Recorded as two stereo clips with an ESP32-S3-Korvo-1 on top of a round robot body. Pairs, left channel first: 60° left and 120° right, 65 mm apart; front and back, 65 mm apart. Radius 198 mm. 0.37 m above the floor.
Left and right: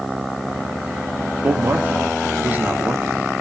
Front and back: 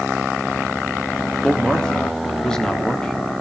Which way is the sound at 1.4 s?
75° right.